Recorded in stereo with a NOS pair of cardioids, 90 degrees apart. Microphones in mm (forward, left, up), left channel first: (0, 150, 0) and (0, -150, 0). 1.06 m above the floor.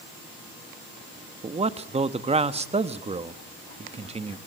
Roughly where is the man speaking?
Ahead.